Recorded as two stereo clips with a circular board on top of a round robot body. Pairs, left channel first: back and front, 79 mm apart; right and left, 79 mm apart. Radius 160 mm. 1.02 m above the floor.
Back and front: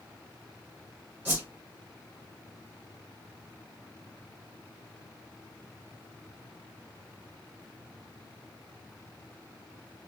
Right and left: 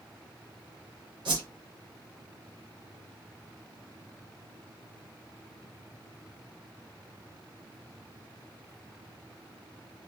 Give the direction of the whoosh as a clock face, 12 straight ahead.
10 o'clock.